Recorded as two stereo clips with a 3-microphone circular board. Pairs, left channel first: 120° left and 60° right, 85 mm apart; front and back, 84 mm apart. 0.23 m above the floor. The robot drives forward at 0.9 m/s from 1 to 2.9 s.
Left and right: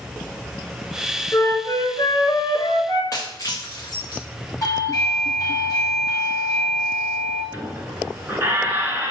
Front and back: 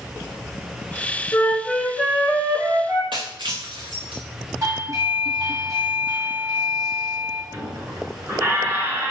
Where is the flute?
65° left, 1.0 m; by 3.0 s 140° left, 1.4 m.